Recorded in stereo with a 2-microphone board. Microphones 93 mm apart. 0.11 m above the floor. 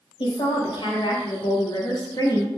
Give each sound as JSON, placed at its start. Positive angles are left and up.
{"t": 0.2, "sound": "a woman speaking", "side_deg": 65, "distance_m": 3.0}